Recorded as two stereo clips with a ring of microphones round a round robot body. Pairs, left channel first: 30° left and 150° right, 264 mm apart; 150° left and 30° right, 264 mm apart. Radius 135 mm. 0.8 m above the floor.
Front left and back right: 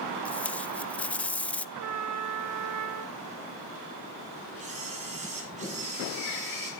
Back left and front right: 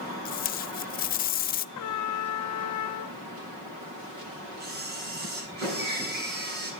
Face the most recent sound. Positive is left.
turn(degrees=-85)